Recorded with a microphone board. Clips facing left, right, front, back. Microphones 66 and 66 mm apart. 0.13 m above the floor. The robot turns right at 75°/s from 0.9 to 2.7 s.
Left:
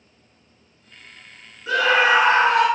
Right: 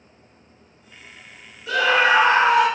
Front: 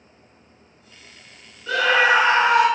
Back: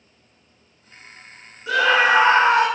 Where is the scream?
120° left, 2.0 m; by 2.7 s 165° right, 2.0 m.